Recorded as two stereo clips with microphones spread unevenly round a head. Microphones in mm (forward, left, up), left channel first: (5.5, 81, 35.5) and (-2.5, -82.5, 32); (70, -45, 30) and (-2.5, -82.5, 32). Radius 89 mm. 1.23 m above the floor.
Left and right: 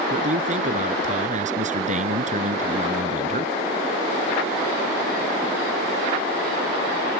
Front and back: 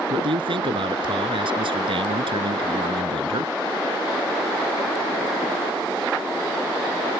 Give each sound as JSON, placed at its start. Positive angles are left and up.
{"t": 0.1, "sound": "a man speaking", "azimuth_deg": -140}